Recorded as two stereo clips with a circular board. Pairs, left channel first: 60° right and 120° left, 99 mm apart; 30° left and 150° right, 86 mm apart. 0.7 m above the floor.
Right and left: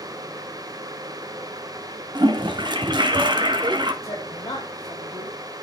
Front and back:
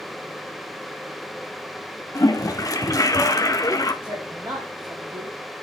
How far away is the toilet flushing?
About 0.8 m.